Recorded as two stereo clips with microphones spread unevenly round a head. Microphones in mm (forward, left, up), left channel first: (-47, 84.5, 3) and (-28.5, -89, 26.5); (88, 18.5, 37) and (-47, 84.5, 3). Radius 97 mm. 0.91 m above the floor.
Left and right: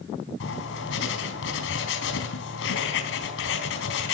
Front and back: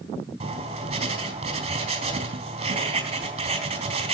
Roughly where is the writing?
Left.